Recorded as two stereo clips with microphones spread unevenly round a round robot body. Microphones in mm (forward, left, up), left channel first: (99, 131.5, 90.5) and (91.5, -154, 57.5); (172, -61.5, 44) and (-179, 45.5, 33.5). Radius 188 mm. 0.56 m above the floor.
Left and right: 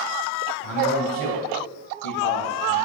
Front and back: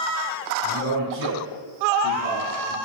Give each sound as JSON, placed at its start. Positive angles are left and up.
{"t": 0.6, "sound": "a man speaking", "azimuth_deg": 110, "distance_m": 4.0}